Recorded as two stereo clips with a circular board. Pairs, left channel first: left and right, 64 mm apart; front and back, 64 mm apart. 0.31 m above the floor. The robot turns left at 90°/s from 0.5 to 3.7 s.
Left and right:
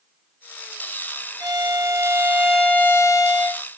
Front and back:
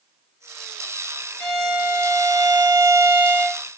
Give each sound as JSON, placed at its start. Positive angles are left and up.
{"t": 1.4, "sound": "a violin", "azimuth_deg": -75, "distance_m": 0.6}